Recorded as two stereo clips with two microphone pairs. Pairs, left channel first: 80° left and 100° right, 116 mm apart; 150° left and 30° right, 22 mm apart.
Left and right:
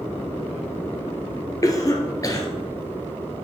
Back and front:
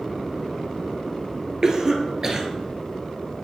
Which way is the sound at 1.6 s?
30° left.